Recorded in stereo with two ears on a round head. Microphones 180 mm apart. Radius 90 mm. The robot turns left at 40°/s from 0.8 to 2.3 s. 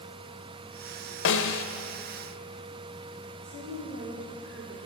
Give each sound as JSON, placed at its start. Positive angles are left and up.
{"t": 1.2, "sound": "a snare drum", "side_deg": 65, "distance_m": 0.6}
{"t": 3.4, "sound": "a woman speaking", "side_deg": -65, "distance_m": 2.0}